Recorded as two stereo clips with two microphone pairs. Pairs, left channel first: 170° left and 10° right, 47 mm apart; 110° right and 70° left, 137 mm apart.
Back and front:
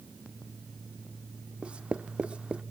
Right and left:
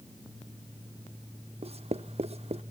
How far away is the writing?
About 0.7 m.